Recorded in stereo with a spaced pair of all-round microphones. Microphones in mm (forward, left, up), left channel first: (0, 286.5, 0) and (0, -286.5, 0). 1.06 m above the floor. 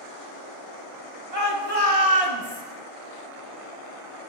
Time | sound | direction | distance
1.3 | a shout | 80° right | 2.5 m